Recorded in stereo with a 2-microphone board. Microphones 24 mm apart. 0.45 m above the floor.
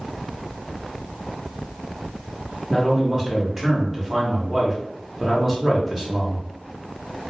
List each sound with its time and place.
2.7 s a man speaking: 15° right (ahead or behind), 0.9 m